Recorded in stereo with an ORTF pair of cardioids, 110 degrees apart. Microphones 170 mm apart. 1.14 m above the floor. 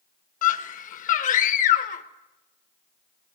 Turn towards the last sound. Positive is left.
turn(degrees=50)